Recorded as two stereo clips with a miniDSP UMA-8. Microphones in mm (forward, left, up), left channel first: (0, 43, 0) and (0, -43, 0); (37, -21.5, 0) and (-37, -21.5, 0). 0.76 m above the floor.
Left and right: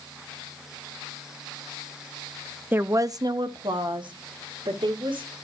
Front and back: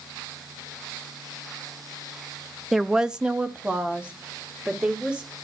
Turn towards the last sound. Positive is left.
turn(degrees=-105)